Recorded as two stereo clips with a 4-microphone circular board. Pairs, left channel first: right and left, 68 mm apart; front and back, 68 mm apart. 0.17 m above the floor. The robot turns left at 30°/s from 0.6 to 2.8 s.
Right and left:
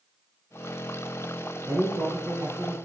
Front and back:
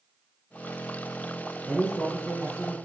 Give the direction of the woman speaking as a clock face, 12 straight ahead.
8 o'clock.